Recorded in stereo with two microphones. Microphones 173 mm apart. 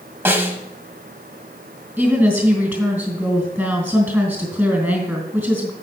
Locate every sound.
0.2 s a snare drum: 15° right (ahead or behind), 0.9 m
2.0 s a woman speaking: 10° right (ahead or behind), 3 m